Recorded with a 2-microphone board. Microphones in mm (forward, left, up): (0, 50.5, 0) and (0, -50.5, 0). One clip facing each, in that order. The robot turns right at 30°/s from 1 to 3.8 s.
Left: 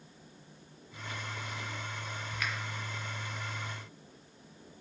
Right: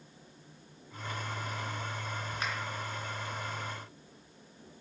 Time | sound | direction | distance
2.4 | a finger snap | 35° right (ahead or behind) | 1.7 m